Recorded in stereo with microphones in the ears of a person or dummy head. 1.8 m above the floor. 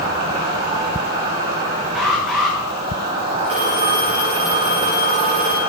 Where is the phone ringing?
35° right (ahead or behind), 1.6 m.